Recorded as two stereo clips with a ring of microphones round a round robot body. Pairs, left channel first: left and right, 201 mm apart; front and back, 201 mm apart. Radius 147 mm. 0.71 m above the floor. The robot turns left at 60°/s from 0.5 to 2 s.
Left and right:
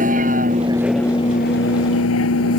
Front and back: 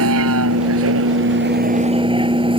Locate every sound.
0.0 s a vehicle: 155° right; by 2.6 s 115° left